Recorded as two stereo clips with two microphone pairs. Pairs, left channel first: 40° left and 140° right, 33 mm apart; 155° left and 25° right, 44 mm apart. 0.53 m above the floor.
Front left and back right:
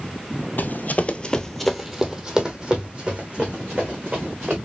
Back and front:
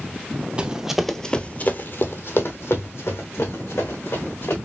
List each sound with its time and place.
0.6 s running footsteps: 40° left, 0.9 m; by 4.6 s 170° left, 3 m